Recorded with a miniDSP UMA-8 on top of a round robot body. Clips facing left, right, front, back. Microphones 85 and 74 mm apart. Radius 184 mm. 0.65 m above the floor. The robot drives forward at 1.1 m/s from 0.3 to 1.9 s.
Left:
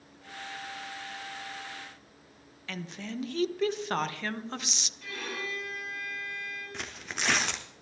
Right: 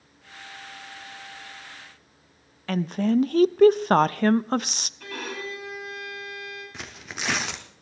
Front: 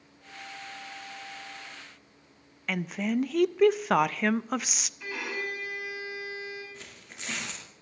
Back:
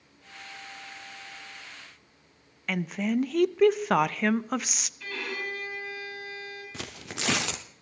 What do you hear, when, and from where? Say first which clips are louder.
2.7 s a woman speaking: right 16 dB, back 1 dB; 90° right, 0.6 m
5.0 s a violin: right 4 dB, even; 75° right, 7 m
6.7 s tearing paper: even, back 8 dB; 175° right, 0.6 m